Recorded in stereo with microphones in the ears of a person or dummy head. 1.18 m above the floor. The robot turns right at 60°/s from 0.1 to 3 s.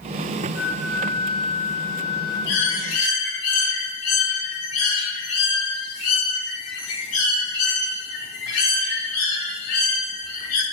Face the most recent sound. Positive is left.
turn(degrees=95)